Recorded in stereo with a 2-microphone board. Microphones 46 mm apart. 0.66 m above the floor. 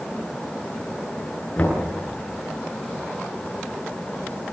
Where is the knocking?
30° left (ahead or behind), 9.5 m.